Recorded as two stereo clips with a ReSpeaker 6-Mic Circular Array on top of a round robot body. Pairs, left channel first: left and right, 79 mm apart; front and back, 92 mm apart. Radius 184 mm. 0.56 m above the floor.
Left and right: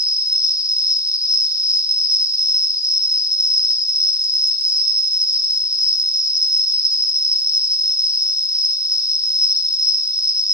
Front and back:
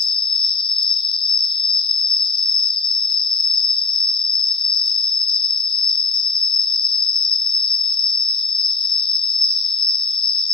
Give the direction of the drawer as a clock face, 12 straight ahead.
I don't hear a drawer.